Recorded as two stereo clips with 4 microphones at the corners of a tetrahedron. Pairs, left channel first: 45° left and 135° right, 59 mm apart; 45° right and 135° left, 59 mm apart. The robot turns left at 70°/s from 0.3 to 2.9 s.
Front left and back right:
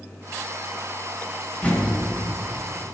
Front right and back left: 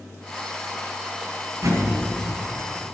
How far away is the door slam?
About 7.5 m.